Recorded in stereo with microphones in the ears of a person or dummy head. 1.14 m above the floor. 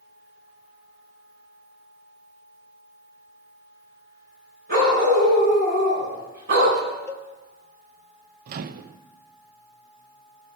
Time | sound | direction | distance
4.7 | a dog barking | 50° right (ahead or behind) | 5.5 m
7.1 | a cowbell | 15° left (ahead or behind) | 0.9 m
8.5 | a microwave | 50° right (ahead or behind) | 0.5 m